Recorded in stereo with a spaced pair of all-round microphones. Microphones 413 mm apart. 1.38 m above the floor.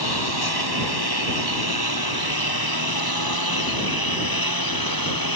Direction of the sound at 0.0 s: 65° left (ahead or behind).